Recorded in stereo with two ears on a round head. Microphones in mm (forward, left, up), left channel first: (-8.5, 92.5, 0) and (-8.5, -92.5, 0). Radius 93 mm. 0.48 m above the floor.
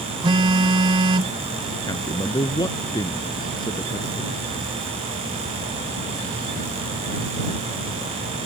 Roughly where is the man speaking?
Centre.